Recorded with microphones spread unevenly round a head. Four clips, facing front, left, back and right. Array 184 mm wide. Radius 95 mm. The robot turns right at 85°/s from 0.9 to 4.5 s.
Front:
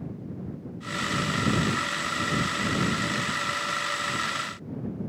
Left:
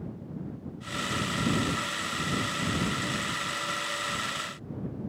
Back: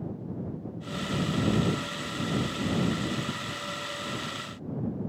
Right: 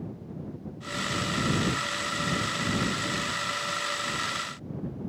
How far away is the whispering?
No whispering in this recording.